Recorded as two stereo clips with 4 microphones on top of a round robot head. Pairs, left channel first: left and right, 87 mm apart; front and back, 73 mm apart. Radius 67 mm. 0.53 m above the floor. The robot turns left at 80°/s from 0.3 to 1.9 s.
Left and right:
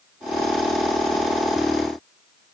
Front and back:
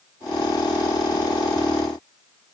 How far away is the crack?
I don't hear a crack.